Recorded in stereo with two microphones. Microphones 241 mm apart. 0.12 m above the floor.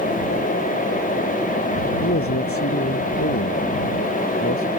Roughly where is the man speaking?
Left.